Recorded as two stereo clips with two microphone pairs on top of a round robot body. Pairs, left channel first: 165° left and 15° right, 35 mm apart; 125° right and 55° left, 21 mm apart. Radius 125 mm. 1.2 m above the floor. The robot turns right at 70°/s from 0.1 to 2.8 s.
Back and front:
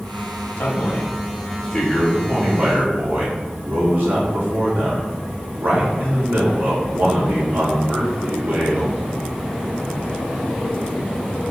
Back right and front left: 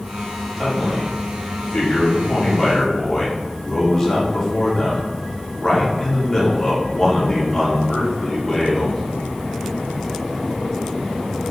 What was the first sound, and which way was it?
A man speaking, 160° left.